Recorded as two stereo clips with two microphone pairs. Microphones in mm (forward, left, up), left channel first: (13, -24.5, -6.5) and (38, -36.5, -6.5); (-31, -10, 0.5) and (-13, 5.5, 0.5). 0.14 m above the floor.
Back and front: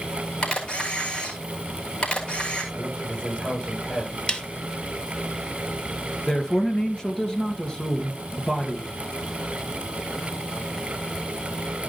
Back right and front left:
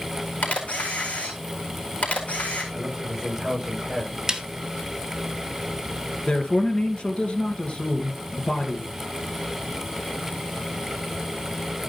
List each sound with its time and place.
0.4 s a camera shutter: 155° right, 4 m
2.7 s a man speaking: 105° left, 7.5 m
4.3 s a snare drum: 100° left, 1.3 m
6.3 s a man speaking: 145° right, 2 m